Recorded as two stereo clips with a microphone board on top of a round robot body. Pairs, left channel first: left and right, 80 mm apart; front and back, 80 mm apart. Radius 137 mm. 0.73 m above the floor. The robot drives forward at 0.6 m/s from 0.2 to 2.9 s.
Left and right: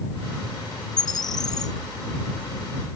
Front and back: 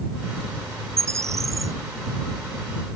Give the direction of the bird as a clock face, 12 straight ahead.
8 o'clock.